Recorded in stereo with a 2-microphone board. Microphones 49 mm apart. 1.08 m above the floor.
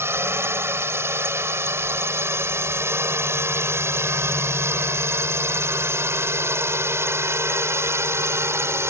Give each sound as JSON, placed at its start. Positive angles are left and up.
{"t": 0.0, "sound": "a drone", "side_deg": -55}